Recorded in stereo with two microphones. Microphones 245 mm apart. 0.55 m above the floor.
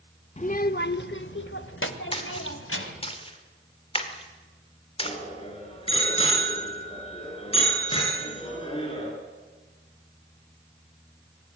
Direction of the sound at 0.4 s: 30° left (ahead or behind).